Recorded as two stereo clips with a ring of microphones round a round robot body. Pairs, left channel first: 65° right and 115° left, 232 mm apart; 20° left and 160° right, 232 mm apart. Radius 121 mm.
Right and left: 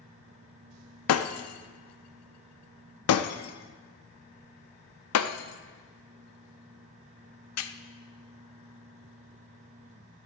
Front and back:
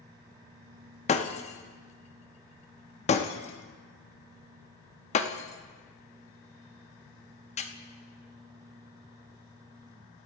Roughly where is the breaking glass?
Ahead right.